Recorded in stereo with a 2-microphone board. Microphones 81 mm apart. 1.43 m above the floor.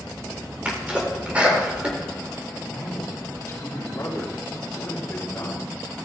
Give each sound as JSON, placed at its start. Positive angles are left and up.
{"t": 0.7, "sound": "a sneeze", "side_deg": -15, "distance_m": 4.0}
{"t": 2.6, "sound": "a man speaking", "side_deg": 35, "distance_m": 3.5}